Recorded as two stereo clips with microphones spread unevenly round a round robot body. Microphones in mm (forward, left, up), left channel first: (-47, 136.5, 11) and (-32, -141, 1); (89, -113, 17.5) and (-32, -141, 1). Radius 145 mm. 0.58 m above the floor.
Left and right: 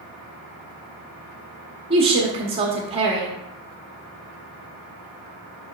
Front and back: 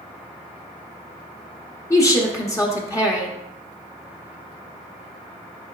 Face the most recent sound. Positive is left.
turn(degrees=-40)